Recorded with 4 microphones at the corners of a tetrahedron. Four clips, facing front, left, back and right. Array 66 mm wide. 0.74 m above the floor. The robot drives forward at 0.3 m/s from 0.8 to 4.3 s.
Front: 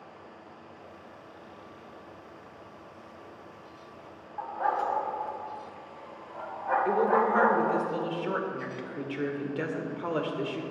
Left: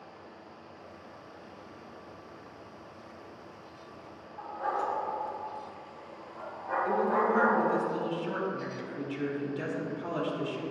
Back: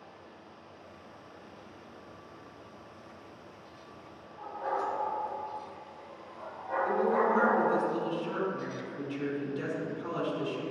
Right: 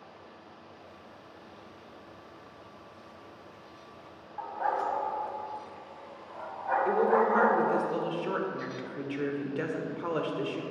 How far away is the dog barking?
About 1.8 m.